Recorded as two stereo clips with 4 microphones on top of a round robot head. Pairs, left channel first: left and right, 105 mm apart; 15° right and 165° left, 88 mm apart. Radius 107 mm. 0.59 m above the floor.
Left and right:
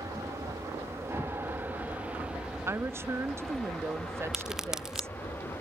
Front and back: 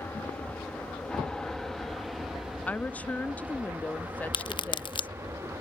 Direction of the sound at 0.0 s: 70° right.